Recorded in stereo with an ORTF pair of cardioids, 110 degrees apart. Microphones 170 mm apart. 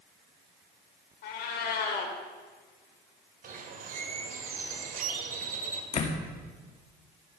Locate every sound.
1.2 s a cat meowing: 70° left, 2.5 m
3.4 s a bird: 55° right, 2 m
5.9 s a door slam: 40° left, 2.0 m